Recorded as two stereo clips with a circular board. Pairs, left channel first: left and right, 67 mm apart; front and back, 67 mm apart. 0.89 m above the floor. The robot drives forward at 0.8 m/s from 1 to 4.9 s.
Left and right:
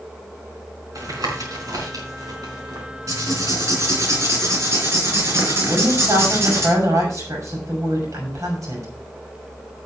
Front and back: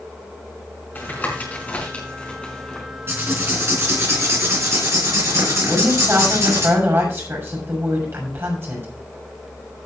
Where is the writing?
125° right, 3.5 m; by 6.7 s 140° right, 4.5 m.